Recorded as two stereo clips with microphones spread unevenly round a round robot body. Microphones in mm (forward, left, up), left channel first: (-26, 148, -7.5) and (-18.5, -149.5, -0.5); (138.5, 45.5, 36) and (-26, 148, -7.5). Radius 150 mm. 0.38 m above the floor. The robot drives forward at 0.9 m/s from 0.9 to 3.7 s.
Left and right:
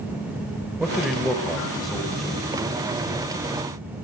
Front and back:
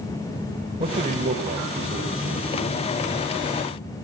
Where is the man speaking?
175° right, 1.1 m; by 2.9 s straight behind, 2.5 m.